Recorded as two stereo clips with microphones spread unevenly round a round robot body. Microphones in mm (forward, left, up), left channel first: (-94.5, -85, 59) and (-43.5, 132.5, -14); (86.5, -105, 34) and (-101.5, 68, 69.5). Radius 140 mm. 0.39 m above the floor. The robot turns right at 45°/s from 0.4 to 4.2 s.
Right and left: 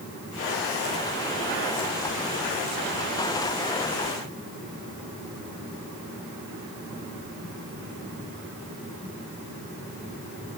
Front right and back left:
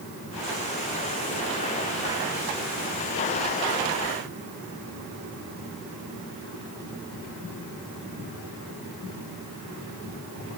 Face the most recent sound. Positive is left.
No sound to turn to.